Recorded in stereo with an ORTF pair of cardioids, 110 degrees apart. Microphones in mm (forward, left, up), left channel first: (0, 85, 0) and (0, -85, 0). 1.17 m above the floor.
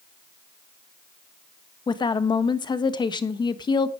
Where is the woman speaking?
25° left, 1.4 m.